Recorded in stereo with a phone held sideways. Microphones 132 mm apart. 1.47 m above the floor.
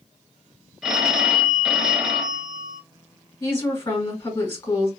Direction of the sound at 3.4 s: 40° left (ahead or behind).